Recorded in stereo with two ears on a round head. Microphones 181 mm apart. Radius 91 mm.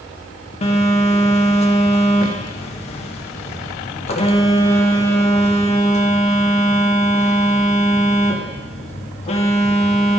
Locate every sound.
0.6 s a phone buzzing: 30° left (ahead or behind), 0.6 m